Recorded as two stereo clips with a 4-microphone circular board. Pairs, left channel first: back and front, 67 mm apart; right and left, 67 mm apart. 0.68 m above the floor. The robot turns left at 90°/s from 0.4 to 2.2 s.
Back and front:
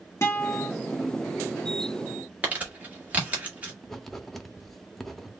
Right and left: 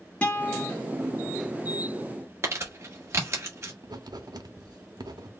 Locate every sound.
0.2 s a guitar: 155° right, 1.3 m; by 0.7 s straight behind, 1.3 m
2.4 s crumpling: 60° left, 1.6 m
3.8 s writing: 95° left, 0.6 m